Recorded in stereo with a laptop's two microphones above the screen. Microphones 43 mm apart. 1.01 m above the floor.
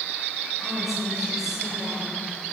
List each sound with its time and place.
0.6 s a woman speaking: 10° right (ahead or behind), 6 m; by 2.2 s 15° right (ahead or behind), 7 m